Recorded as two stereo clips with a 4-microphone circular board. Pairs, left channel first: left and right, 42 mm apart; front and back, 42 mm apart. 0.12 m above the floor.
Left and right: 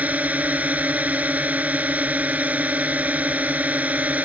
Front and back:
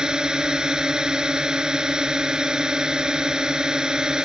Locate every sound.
0.0 s a drone: 120° right